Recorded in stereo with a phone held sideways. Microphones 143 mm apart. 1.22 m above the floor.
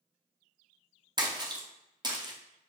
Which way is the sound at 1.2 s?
30° right (ahead or behind).